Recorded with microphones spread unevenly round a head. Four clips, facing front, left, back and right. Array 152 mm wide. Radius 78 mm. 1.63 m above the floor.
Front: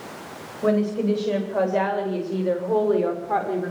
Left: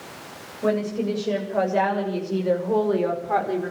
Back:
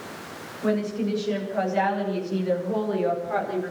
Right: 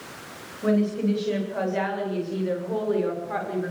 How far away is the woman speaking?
About 8.5 m.